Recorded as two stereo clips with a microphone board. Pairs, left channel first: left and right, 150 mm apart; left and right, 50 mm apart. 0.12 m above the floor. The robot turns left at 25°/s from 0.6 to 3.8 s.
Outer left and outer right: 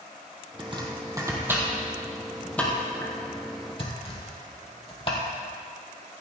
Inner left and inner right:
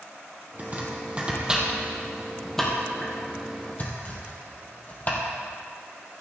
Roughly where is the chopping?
Right.